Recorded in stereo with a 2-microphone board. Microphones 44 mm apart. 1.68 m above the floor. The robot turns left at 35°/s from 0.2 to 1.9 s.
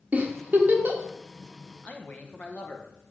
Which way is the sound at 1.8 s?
35° left (ahead or behind).